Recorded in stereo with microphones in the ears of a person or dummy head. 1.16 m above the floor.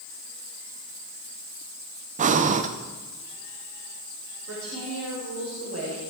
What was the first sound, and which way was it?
Breathing, 35° right (ahead or behind).